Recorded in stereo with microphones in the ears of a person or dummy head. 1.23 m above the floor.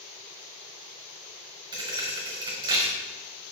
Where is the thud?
20° right (ahead or behind), 1.2 m.